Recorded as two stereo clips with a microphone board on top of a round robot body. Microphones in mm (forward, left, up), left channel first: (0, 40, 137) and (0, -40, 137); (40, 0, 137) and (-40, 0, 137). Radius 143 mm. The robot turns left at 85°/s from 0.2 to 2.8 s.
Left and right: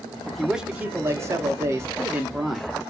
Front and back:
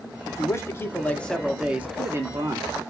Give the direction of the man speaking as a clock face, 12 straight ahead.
12 o'clock.